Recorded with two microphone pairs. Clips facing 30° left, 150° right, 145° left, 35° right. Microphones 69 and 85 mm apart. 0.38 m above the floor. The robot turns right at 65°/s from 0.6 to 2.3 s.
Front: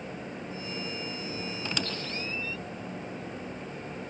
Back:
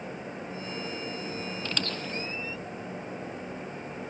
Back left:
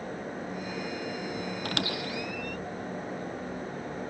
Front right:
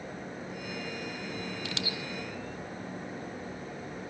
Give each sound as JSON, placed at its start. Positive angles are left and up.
{"t": 1.6, "sound": "a squeak", "azimuth_deg": 100}